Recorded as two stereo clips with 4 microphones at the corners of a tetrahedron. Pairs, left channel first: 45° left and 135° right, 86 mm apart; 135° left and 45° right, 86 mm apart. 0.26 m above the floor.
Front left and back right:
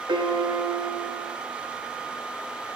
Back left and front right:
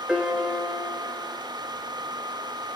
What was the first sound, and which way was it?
A piano, 125° right.